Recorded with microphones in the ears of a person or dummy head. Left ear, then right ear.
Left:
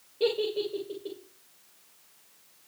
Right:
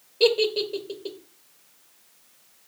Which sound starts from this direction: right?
A giggle, at 0.2 s.